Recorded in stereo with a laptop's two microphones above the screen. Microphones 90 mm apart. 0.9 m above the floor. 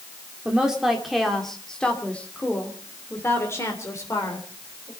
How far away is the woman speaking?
About 2 m.